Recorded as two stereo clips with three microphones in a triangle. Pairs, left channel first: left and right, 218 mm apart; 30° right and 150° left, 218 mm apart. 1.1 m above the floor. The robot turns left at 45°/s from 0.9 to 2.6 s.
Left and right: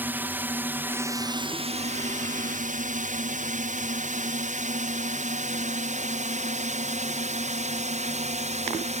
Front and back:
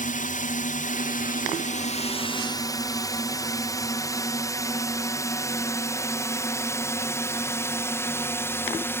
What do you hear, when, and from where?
0.0 s a drone: 15° right; by 9.0 s 100° right